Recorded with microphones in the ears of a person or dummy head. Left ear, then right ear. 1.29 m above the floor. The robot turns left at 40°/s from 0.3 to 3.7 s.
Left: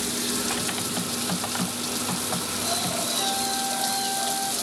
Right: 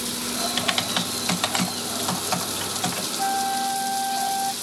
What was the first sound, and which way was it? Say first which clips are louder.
Typing on a keyboard: right 5 dB; 45° right.